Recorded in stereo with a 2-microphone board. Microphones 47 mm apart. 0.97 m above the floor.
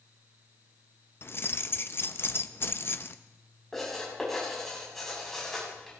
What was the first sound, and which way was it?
Keys jangling, 50° left (ahead or behind).